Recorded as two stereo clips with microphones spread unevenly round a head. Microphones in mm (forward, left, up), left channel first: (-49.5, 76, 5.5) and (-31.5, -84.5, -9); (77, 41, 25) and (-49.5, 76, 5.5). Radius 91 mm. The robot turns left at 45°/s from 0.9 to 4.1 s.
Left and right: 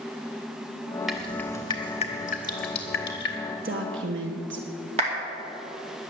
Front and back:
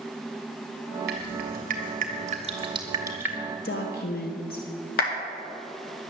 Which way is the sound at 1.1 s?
175° right.